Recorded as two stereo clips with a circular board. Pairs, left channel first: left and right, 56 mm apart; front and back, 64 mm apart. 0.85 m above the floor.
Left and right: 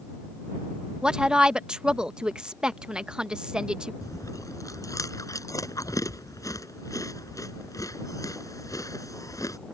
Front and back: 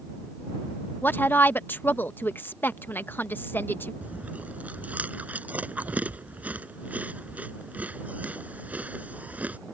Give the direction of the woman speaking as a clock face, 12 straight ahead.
1 o'clock.